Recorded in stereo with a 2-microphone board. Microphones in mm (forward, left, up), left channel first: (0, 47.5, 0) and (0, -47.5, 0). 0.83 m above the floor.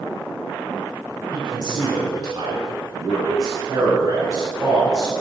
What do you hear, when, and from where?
1.3 s a man speaking: 55° right (ahead or behind), 3 m; by 5.1 s 40° right (ahead or behind), 6 m